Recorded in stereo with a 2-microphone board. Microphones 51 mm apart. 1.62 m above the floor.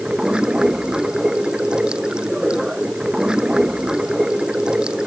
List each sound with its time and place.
0.0 s running water: 15° right (ahead or behind)